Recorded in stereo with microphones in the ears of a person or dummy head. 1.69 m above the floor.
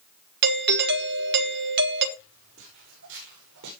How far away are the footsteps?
About 6.5 m.